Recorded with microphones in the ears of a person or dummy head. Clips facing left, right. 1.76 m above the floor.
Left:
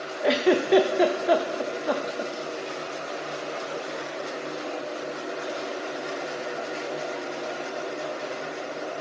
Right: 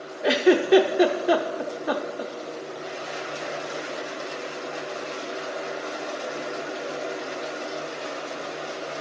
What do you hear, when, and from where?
0.2 s a giggle: centre (ahead or behind), 0.5 m